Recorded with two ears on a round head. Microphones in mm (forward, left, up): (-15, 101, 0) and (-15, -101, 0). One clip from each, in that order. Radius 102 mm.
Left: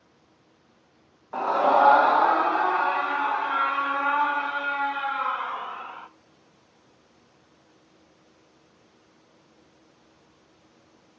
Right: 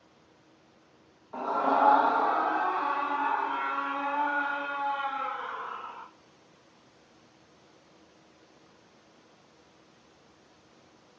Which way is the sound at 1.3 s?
75° left (ahead or behind).